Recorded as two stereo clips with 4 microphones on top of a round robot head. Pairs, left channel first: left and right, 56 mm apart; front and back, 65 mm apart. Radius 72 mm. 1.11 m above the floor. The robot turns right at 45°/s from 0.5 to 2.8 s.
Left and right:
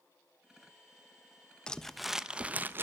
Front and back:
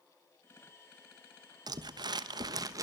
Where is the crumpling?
165° left, 0.9 m; by 2.8 s 145° right, 0.9 m.